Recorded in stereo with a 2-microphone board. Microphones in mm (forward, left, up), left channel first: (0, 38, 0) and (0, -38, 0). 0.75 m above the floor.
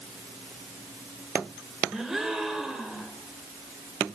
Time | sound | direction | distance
1.9 | a gasp | 5° right (ahead or behind) | 3.5 m